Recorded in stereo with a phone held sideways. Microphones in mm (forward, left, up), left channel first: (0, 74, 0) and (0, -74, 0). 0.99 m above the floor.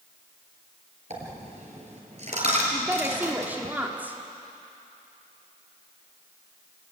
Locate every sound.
1.1 s a dropped coin: 50° right (ahead or behind), 4 m
2.7 s a woman speaking: 10° right (ahead or behind), 2 m